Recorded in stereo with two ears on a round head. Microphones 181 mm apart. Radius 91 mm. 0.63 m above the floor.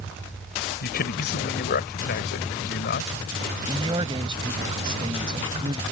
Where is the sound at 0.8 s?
50° left (ahead or behind).